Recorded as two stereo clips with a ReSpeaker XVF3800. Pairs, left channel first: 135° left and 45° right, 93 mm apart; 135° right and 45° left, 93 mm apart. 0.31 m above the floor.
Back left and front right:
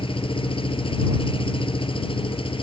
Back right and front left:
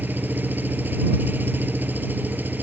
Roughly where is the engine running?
Behind left.